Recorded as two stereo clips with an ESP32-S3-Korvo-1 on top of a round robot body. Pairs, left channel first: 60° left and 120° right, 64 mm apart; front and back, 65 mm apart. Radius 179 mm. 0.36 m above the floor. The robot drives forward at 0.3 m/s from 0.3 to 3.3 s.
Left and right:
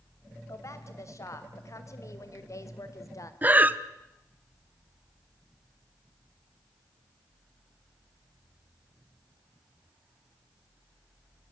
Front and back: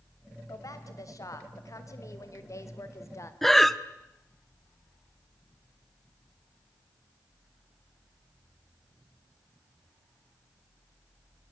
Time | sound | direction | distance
0.5 | a woman speaking | 25° left | 3 m
3.4 | breathing | 85° right | 1.1 m